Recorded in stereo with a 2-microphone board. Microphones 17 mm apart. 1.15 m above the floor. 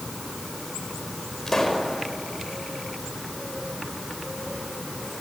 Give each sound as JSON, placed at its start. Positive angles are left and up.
{"t": 1.5, "sound": "a pop", "side_deg": 20, "distance_m": 4.5}